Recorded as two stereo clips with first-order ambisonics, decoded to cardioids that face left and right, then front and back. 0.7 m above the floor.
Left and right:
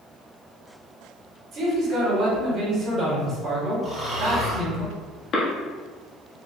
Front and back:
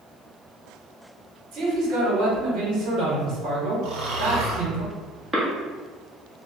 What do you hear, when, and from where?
1.5 s a man speaking: 140° right, 1.7 m
3.8 s snoring: 160° right, 1.1 m
5.3 s a cough: 110° left, 1.2 m